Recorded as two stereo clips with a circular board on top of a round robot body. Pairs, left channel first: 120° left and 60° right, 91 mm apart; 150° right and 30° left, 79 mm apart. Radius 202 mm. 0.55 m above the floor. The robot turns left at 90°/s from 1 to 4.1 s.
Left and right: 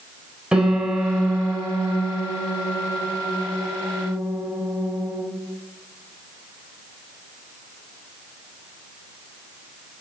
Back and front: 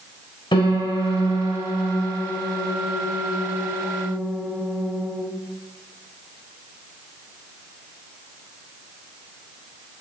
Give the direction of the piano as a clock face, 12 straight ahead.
5 o'clock.